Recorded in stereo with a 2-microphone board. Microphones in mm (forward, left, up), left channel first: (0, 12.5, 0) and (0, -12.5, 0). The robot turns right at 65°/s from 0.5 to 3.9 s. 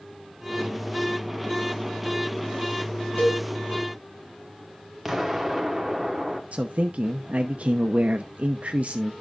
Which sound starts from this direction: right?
A man speaking, at 6.5 s.